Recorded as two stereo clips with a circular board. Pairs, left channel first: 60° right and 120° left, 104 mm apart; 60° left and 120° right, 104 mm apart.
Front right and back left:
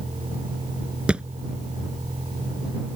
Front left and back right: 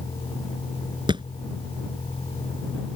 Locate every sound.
0.0 s a vehicle: 95° left; by 3.0 s 90° left
1.1 s a thud: 160° right